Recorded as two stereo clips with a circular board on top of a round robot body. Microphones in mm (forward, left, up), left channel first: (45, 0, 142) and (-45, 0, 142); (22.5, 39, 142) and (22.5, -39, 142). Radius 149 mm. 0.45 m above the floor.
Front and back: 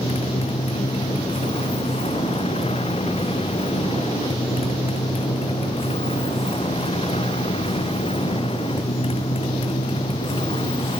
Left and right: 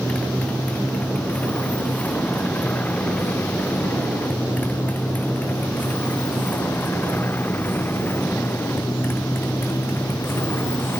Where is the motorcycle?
15° left; by 11.0 s 30° left.